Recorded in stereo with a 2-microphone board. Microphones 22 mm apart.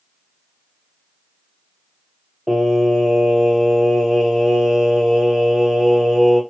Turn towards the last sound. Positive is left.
turn(degrees=-30)  # may be behind; listen again after turning